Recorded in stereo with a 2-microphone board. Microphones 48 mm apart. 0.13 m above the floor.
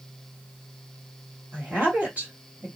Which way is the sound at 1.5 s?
40° right (ahead or behind).